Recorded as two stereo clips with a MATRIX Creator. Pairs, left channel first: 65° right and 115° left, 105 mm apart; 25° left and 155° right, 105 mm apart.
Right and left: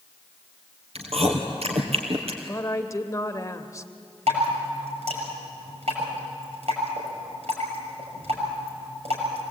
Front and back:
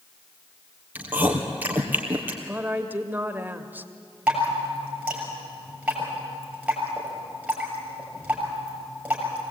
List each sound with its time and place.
0.9 s chewing: 130° left, 3 m
2.4 s a woman speaking: 100° right, 1.1 m
4.3 s dripping: 125° left, 6.5 m